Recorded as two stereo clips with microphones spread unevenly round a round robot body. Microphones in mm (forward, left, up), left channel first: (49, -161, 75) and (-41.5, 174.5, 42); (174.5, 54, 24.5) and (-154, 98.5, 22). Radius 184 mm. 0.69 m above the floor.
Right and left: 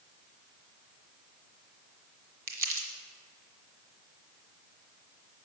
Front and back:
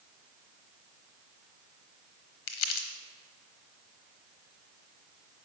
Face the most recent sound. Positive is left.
turn(degrees=40)